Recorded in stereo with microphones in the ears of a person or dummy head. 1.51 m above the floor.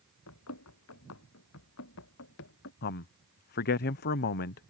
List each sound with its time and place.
0.3 s running footsteps: 80° left; by 2.7 s 65° left (ahead or behind)
2.8 s a man speaking: 50° left (ahead or behind)